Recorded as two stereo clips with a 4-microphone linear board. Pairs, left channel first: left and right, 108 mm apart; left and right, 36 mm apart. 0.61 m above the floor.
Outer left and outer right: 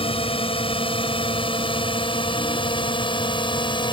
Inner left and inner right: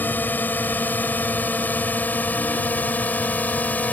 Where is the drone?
60° left (ahead or behind); by 3.9 s 45° left (ahead or behind).